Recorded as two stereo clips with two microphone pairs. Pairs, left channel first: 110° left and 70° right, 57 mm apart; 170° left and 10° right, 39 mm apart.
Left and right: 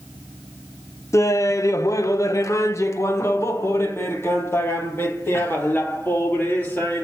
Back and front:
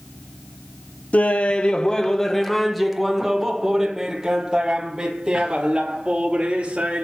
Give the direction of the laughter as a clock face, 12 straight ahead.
8 o'clock.